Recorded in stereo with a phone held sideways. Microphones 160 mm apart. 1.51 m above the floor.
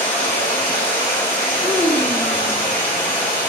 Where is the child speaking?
5° right (ahead or behind), 1.0 m.